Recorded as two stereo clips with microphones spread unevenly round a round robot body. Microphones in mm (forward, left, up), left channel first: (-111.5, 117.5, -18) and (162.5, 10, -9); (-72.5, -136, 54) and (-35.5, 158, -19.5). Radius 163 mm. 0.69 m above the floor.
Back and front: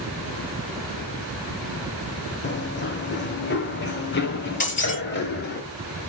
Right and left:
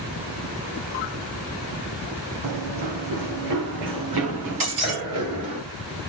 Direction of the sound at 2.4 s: 105° left.